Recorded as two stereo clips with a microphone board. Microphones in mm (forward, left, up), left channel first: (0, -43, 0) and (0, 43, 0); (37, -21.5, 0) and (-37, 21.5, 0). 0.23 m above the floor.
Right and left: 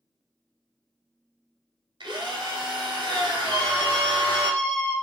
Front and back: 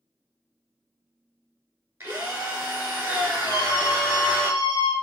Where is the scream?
60° right, 1.6 m.